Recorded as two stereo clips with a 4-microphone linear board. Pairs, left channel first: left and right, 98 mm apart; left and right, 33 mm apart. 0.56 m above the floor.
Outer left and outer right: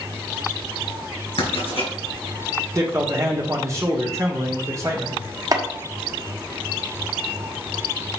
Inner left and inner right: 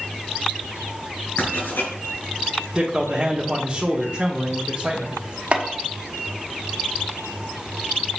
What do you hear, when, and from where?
1.4 s writing: 75° left (ahead or behind), 4 m
2.7 s a man speaking: 30° right (ahead or behind), 1.3 m
5.5 s chopping: 40° right (ahead or behind), 1.1 m